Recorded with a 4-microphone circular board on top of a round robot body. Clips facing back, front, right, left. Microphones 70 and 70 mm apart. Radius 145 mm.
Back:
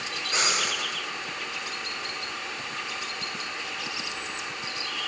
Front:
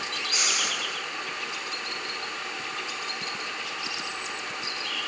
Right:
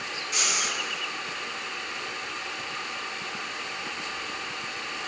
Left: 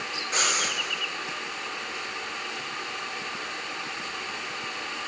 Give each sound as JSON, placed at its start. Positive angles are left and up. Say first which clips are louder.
{"t": 0.3, "sound": "breathing", "louder": "back 4 dB, left 3 dB", "azimuth_deg": 130, "distance_m": 1.9}